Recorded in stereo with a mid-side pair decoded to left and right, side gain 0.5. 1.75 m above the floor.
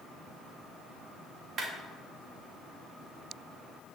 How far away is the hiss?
I don't hear a hiss.